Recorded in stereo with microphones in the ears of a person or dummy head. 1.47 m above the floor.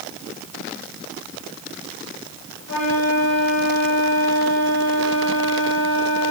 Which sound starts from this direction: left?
A flute, at 2.7 s.